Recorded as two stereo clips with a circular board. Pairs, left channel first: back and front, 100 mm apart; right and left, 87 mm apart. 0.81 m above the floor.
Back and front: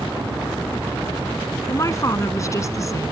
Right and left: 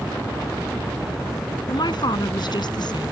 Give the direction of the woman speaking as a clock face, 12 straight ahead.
4 o'clock.